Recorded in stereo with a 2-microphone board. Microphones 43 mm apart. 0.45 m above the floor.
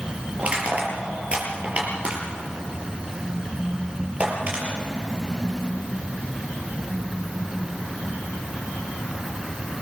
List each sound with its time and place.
0.4 s crushing: 30° right (ahead or behind), 6 m